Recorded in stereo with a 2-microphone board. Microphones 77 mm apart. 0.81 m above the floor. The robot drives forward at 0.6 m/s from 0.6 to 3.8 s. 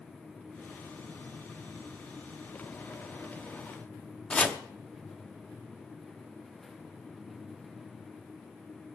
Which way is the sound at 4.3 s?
15° left (ahead or behind).